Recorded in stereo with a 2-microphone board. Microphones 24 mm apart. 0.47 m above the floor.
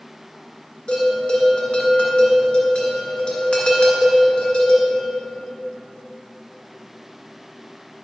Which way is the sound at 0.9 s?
45° left (ahead or behind).